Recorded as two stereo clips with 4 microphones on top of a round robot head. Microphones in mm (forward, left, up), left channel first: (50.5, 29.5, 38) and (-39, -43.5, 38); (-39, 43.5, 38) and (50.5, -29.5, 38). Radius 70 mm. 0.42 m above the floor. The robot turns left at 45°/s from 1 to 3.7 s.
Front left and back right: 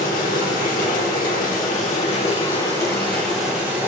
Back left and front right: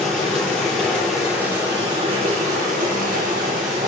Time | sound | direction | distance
0.0 | running water | 55° left | 3 m